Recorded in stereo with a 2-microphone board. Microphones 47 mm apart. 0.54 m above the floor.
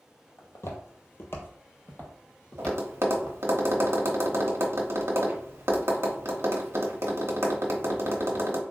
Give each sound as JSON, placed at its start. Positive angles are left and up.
{"t": 0.4, "sound": "footsteps", "side_deg": 65, "distance_m": 1.1}
{"t": 2.6, "sound": "tapping", "side_deg": -60, "distance_m": 0.8}